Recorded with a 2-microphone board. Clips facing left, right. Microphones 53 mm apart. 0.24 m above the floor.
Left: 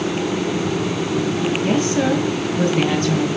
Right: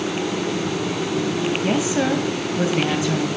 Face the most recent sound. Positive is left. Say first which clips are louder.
# left 3 dB
turn(degrees=-10)  # may be behind; listen again after turning